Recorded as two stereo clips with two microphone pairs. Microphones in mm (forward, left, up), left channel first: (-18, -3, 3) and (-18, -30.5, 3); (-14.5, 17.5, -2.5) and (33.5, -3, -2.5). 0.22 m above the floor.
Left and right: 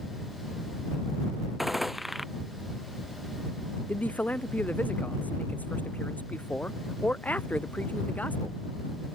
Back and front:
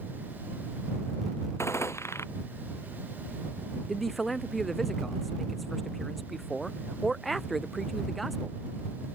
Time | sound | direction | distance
1.6 | a gunshot | 175° right | ?
3.9 | a man speaking | 65° left | ?